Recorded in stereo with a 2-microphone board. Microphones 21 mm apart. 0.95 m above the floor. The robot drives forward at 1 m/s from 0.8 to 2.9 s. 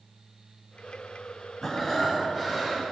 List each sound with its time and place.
1.6 s breathing: 25° left (ahead or behind), 2.5 m; by 2.8 s 20° left (ahead or behind), 3.5 m